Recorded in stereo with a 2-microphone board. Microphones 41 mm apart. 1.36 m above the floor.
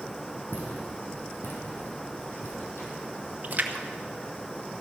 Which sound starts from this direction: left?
Footsteps, at 0.5 s.